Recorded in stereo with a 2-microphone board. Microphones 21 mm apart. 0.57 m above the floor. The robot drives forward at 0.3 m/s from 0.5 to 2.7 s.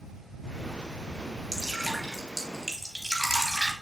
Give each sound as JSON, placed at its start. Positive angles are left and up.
{"t": 1.5, "sound": "dripping", "side_deg": 0, "distance_m": 2.5}